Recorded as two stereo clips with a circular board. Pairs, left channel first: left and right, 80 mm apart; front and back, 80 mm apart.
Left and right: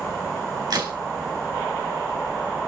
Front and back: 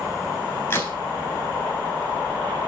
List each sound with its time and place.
0.7 s a crack: 60° right, 3.5 m